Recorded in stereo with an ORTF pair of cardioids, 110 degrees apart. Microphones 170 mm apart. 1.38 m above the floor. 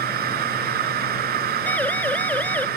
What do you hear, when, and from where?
0.0 s a machine running: 65° right
1.7 s a siren: 10° left